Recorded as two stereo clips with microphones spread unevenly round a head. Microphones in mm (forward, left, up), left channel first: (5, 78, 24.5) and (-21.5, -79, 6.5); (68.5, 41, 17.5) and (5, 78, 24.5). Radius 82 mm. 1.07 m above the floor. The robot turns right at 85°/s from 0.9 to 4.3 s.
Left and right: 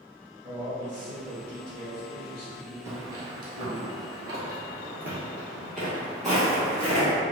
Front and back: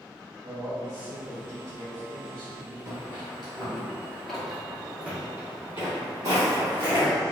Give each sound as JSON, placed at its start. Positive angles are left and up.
{"t": 0.4, "sound": "a man speaking", "azimuth_deg": -145, "distance_m": 1.2}
{"t": 2.9, "sound": "footsteps", "azimuth_deg": -175, "distance_m": 1.3}